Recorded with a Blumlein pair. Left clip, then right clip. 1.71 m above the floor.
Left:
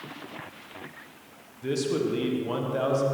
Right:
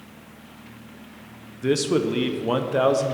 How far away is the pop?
I don't hear a pop.